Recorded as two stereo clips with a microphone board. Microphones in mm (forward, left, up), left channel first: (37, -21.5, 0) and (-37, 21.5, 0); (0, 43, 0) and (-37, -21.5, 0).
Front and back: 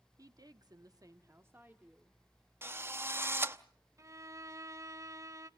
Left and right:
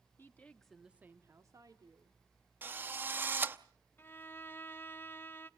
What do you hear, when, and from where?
0.2 s a woman speaking: 115° left, 1.6 m; by 2.2 s 135° right, 2.5 m
2.6 s a drill: 165° right, 0.8 m
4.0 s a violin: 110° left, 0.6 m